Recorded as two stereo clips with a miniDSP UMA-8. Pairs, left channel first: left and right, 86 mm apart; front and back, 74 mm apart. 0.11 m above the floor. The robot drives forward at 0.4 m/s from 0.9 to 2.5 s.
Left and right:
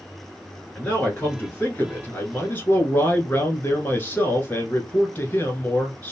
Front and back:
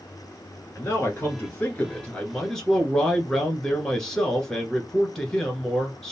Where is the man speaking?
30° left, 1.4 m; by 6.1 s 75° left, 1.2 m.